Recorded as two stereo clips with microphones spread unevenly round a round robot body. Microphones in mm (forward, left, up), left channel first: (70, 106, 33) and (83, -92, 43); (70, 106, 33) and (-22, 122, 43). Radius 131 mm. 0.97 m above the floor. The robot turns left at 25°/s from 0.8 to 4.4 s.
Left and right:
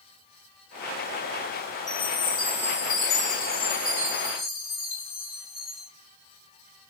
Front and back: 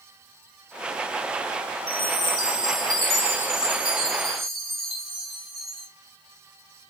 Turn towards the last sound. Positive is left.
turn(degrees=80)